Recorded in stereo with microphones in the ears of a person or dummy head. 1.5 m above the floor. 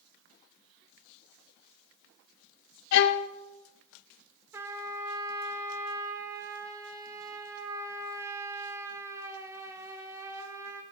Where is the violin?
55° left (ahead or behind), 0.5 m.